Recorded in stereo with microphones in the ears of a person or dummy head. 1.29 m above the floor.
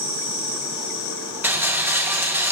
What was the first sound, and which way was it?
A rattle, 5° right (ahead or behind).